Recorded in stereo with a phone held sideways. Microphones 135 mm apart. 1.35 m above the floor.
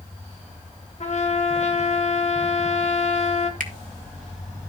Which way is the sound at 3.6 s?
75° right (ahead or behind).